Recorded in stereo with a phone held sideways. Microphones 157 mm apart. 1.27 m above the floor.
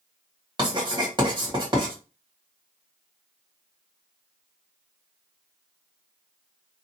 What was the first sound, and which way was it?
Writing, 30° right (ahead or behind).